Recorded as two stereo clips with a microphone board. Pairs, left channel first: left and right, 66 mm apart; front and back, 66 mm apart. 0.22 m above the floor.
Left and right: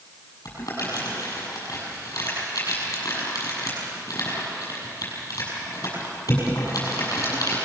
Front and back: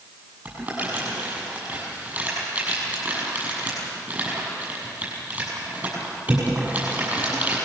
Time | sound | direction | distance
0.5 | crumpling | 115° left | 7 m